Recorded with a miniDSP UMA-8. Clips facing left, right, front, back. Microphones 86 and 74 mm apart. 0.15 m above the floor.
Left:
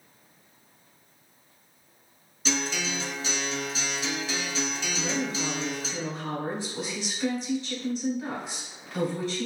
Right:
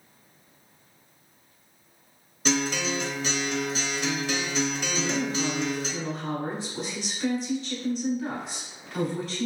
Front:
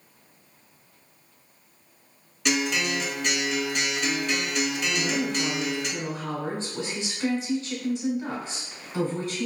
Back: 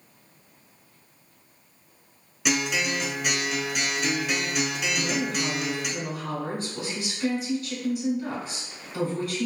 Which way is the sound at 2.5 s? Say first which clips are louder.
Right 4 dB, front 1 dB; 100° right.